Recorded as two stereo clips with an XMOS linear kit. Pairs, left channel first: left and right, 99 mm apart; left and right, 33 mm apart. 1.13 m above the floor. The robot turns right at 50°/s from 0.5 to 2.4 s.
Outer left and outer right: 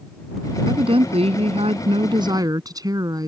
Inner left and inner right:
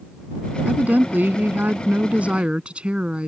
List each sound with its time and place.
0.7 s a woman speaking: 125° right; by 3.3 s 40° right